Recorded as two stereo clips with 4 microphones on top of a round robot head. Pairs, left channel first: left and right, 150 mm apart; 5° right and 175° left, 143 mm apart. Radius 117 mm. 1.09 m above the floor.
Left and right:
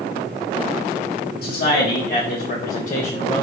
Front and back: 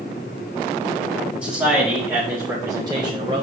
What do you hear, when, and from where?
1.4 s a man speaking: 95° left, 1.9 m; by 3.4 s 125° left, 1.1 m